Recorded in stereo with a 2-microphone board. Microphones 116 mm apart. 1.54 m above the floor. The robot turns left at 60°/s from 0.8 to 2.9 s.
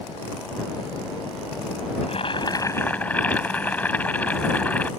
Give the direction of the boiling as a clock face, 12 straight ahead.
10 o'clock.